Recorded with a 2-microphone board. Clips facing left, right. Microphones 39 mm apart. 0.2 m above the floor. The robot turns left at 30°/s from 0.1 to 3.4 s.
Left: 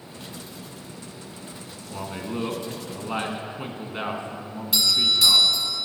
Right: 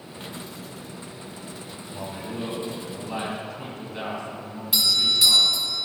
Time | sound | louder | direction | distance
1.9 | a man speaking | left 3 dB | 90° left | 1.9 m
4.7 | a doorbell | left 1 dB | centre (ahead or behind) | 1.5 m